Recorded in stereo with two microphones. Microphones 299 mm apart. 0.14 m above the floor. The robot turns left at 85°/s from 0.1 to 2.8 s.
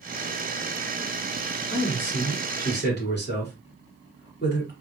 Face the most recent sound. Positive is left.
turn(degrees=100)